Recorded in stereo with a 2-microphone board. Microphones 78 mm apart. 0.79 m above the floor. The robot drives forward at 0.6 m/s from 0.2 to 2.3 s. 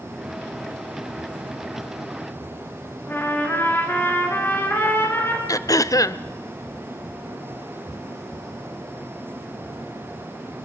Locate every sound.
3.1 s a trumpet: 30° left (ahead or behind), 3.5 m
5.5 s throat clearing: 45° left (ahead or behind), 0.6 m